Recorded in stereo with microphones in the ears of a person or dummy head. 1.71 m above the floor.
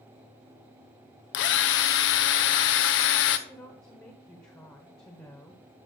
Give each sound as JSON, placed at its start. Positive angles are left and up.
{"t": 1.3, "sound": "a drill", "side_deg": 65, "distance_m": 0.9}
{"t": 3.5, "sound": "a woman speaking", "side_deg": 15, "distance_m": 1.1}